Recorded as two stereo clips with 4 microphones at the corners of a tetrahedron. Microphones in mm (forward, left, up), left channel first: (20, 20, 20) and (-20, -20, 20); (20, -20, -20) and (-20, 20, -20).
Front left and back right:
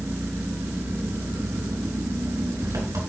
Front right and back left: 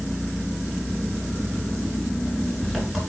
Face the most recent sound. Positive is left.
turn(degrees=-135)